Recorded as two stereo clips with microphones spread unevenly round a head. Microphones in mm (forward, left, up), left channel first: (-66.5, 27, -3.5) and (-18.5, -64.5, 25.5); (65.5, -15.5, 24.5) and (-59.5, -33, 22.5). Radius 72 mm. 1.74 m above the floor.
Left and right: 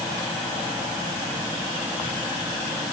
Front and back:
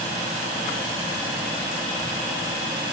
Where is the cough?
I don't hear a cough.